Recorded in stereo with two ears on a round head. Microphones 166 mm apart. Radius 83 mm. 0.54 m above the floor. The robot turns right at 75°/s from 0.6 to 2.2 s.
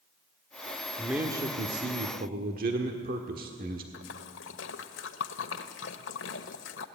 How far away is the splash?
About 1.3 m.